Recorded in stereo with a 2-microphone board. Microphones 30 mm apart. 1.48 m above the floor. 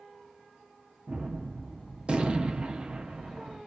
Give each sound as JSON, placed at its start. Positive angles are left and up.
{"t": 1.1, "sound": "a gunshot", "side_deg": -30, "distance_m": 0.7}